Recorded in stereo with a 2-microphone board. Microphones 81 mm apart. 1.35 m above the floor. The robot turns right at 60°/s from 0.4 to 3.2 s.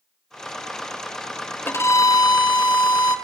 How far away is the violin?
About 1.5 m.